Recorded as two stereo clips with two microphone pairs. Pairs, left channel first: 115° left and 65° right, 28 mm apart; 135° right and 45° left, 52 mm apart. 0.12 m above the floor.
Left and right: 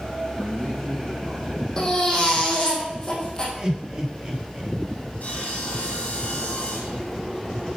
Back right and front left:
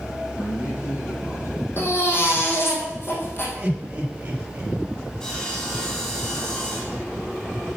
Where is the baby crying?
175° right, 3 m.